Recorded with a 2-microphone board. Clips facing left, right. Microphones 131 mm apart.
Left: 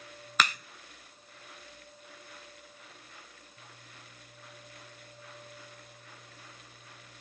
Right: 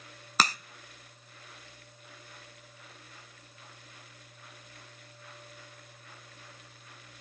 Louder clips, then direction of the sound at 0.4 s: Right 1 dB; 35° right (ahead or behind).